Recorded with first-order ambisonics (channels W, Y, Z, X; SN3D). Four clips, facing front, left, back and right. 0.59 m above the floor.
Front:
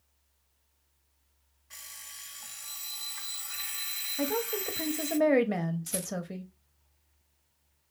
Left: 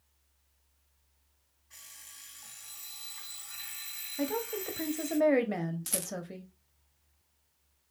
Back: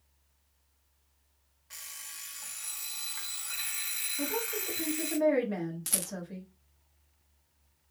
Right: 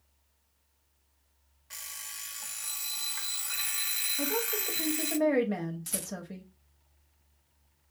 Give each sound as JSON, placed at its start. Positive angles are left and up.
{"t": 1.7, "sound": "an alarm clock", "azimuth_deg": -105, "distance_m": 0.7}
{"t": 4.2, "sound": "a woman speaking", "azimuth_deg": 15, "distance_m": 0.7}
{"t": 5.9, "sound": "a rattle", "azimuth_deg": 160, "distance_m": 0.7}